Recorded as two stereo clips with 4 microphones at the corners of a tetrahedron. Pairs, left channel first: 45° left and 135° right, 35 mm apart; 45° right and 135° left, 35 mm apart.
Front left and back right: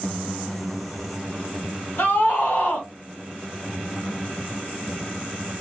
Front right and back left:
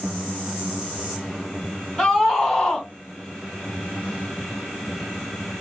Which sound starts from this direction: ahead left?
A scream, at 2.0 s.